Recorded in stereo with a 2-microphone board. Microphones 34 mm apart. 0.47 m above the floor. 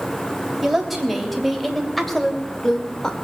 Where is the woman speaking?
5° right (ahead or behind), 3 m; by 3.1 s 20° left (ahead or behind), 1.8 m.